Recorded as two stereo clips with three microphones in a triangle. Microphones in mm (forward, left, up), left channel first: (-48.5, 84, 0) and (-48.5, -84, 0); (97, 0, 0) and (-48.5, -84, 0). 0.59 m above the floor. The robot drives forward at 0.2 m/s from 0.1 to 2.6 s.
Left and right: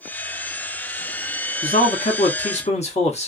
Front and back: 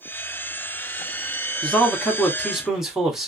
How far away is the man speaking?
About 1.0 m.